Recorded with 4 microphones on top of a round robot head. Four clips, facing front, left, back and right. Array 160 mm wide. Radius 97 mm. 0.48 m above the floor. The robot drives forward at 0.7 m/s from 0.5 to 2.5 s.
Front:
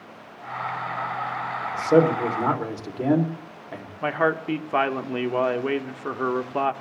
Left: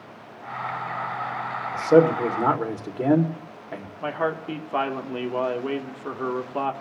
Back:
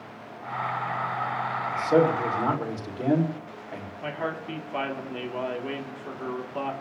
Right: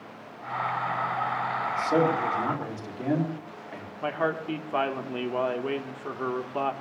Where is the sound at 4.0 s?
10° left, 1.4 m.